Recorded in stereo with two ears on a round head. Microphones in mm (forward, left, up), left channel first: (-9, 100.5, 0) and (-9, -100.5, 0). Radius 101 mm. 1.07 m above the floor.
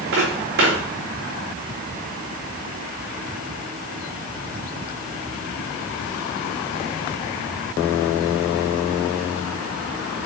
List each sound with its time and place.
0.1 s footsteps: 50° right (ahead or behind), 3.5 m